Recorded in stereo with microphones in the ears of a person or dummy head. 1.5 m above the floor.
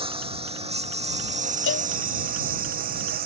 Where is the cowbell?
65° left (ahead or behind).